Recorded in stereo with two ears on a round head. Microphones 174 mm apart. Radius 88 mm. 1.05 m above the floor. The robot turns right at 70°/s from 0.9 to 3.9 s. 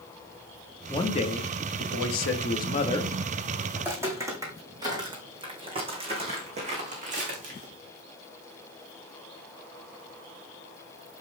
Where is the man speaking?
15° left, 1.3 m; by 3.1 s 170° left, 1.3 m.